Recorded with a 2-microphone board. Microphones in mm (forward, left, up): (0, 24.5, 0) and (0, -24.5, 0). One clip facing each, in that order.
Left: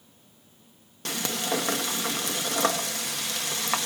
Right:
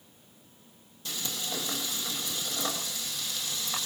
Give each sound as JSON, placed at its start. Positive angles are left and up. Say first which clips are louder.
{"t": 1.1, "sound": "frying", "louder": "left 8 dB", "side_deg": 65, "distance_m": 1.1}